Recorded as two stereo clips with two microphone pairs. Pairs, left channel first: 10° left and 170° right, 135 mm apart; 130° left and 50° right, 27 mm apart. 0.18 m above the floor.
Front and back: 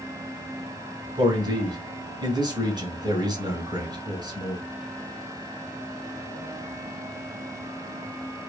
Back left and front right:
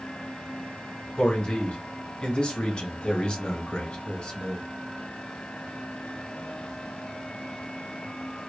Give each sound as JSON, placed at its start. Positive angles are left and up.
{"t": 1.2, "sound": "a man speaking", "azimuth_deg": 155, "distance_m": 1.3}